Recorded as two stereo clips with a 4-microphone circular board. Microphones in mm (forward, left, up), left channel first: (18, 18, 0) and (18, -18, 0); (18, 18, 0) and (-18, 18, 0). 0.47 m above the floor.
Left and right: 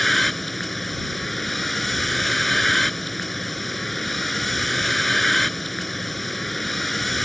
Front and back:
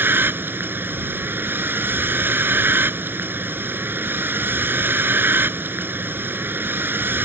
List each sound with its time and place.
0.0 s a vehicle: 175° left